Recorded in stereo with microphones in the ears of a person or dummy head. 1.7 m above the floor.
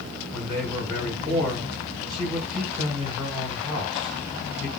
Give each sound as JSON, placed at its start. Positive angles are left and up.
{"t": 0.3, "sound": "a man speaking", "side_deg": 0, "distance_m": 7.0}